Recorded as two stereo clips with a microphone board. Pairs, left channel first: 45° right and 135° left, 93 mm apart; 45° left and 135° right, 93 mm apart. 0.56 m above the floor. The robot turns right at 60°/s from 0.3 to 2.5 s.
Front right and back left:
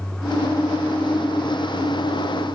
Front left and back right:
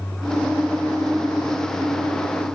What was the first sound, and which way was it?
Only background noise.